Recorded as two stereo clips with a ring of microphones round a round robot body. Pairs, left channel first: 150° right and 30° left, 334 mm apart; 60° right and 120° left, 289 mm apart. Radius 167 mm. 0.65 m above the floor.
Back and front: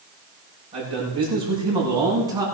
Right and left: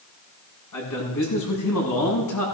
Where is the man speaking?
45° right, 7 m; by 2.5 s 50° right, 7.5 m.